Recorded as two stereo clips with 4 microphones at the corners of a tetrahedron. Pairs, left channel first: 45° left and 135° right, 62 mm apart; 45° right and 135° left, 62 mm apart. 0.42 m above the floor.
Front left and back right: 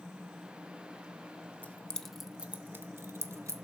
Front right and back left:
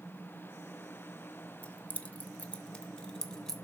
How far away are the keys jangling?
About 0.7 m.